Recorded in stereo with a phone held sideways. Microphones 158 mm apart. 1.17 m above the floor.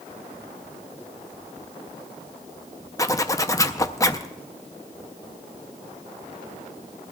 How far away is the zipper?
About 0.5 m.